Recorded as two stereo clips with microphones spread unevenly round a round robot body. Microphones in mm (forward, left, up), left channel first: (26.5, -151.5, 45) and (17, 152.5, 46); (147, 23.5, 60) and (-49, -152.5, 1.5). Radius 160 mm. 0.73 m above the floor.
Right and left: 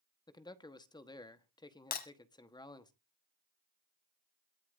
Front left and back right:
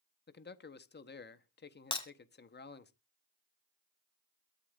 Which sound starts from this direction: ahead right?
Breaking glass, at 1.9 s.